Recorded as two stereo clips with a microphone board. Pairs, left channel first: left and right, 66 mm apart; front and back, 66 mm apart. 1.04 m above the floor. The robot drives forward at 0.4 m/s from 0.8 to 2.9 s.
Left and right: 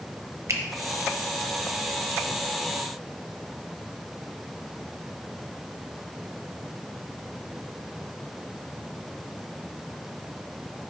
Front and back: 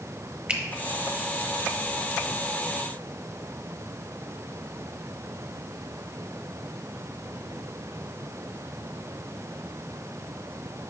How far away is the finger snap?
About 0.9 m.